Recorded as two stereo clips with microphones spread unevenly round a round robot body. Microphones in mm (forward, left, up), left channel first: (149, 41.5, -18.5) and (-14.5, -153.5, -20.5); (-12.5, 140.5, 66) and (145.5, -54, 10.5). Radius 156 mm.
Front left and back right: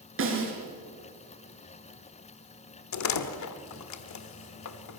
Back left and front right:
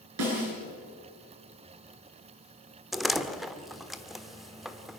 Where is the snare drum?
95° right, 6 m.